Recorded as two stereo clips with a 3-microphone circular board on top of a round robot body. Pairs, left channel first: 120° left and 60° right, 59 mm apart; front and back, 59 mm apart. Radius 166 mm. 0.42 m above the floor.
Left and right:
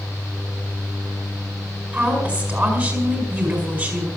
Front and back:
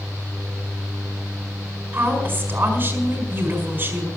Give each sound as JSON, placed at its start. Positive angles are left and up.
{"t": 1.9, "sound": "a woman speaking", "azimuth_deg": -125, "distance_m": 4.5}